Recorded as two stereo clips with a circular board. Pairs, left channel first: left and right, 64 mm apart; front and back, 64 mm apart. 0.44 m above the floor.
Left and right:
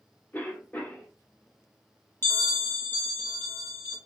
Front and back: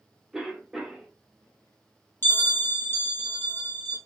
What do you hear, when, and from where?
0.3 s a cough: 100° left, 1.2 m
2.2 s a bell: 45° left, 1.7 m